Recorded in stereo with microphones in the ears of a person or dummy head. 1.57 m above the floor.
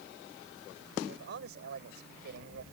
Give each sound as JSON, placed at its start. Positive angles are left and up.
{"t": 1.1, "sound": "a man speaking", "side_deg": -65}